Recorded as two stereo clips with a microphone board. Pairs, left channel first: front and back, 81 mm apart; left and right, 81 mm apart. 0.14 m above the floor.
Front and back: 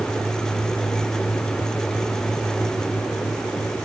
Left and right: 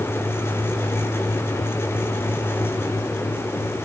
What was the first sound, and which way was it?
Only background noise.